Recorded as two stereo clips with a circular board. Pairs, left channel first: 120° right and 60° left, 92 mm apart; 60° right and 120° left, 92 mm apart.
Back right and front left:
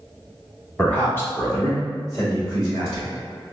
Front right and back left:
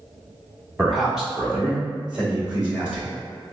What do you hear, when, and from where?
0.8 s a man speaking: 165° right, 0.9 m; by 3.1 s 160° right, 1.9 m